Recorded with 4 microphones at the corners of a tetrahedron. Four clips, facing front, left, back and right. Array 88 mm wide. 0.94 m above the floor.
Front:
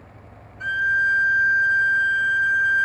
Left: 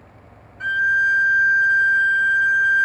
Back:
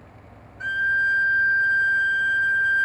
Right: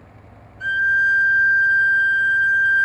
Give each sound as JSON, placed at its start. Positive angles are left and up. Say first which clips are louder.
{"t": 0.6, "sound": "a violin", "louder": "right 1 dB, front 1 dB", "azimuth_deg": 110, "distance_m": 1.4}